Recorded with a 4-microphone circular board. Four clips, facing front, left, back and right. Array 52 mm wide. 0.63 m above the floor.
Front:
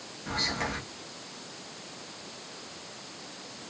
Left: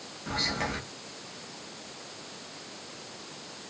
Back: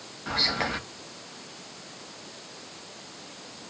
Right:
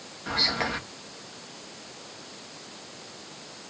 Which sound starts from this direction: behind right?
Whispering, at 0.3 s.